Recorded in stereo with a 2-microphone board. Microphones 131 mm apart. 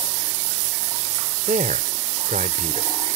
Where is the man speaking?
75° right (ahead or behind).